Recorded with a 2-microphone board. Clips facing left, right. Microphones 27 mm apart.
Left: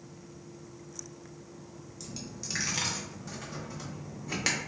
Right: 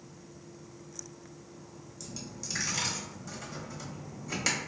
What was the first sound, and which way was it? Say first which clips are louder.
A dropped coin: left 1 dB; 20° left (ahead or behind).